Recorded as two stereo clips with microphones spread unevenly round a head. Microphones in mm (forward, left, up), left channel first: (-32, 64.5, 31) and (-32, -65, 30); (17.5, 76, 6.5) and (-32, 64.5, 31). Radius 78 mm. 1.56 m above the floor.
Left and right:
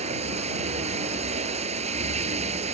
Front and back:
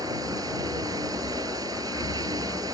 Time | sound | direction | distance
0.0 | running water | 130° right | ?